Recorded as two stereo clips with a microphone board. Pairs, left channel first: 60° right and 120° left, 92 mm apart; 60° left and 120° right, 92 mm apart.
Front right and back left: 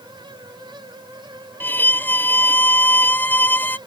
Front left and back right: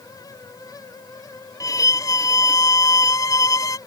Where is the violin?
10° left.